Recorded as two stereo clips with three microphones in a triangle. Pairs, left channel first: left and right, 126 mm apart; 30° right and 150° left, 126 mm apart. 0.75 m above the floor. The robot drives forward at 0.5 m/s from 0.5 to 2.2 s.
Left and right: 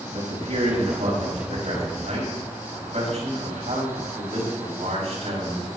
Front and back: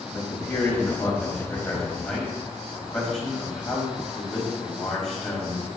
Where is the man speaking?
105° right, 5 m; by 5.7 s 115° right, 5 m.